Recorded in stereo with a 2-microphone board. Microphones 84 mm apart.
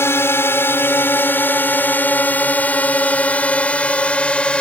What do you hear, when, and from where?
0.0 s a drone: 30° left (ahead or behind); by 4.6 s 15° left (ahead or behind)